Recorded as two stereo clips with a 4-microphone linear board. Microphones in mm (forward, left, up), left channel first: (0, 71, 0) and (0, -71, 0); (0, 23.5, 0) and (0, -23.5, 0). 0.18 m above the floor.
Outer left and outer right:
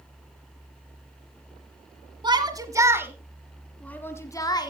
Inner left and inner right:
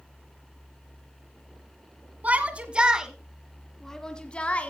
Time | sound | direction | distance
2.2 | a shout | 30° right (ahead or behind) | 1.3 m